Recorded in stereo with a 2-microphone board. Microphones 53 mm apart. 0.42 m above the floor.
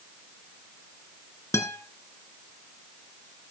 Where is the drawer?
No drawer in this recording.